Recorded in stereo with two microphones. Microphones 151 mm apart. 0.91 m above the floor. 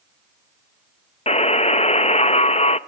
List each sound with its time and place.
1.3 s a buzzer: 45° left (ahead or behind), 0.7 m